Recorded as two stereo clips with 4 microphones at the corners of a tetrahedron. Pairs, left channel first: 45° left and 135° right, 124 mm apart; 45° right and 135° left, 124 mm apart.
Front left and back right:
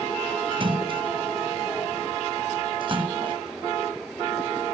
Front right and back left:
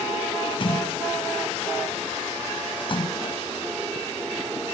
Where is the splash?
90° right.